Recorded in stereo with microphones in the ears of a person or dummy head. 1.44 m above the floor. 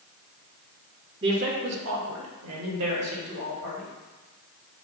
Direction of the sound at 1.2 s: 35° right (ahead or behind).